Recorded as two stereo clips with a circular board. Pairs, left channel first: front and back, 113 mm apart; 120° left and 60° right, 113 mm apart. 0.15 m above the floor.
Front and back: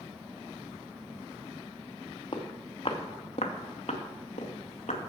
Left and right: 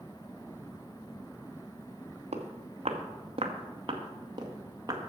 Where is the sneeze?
No sneeze in this recording.